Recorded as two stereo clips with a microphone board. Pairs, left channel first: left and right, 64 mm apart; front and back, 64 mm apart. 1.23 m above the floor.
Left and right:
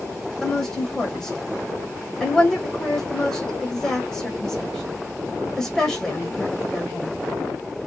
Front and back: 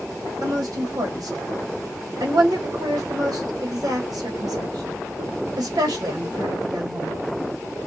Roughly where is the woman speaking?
Behind.